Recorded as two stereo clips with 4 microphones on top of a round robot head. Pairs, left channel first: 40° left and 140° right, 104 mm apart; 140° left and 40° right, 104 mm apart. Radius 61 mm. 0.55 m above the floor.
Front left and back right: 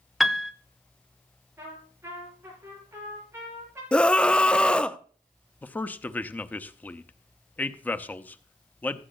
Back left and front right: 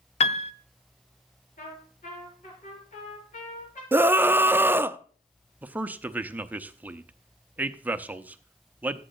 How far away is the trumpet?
About 6 m.